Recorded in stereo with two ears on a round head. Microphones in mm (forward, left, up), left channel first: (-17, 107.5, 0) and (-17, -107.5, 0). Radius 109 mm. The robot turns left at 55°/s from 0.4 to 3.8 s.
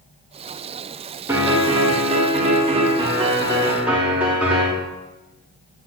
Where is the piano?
10° right (ahead or behind), 0.6 m; by 4.7 s 5° right (ahead or behind), 0.6 m.